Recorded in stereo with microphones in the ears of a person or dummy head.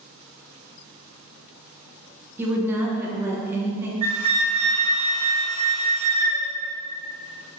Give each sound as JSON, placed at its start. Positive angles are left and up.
{"t": 2.4, "sound": "a woman speaking", "side_deg": -10, "distance_m": 0.6}
{"t": 4.0, "sound": "a flute", "side_deg": -30, "distance_m": 0.9}